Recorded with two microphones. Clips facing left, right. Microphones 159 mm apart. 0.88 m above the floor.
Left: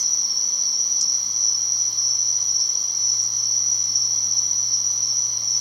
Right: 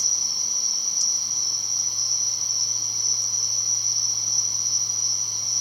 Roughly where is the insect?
Left.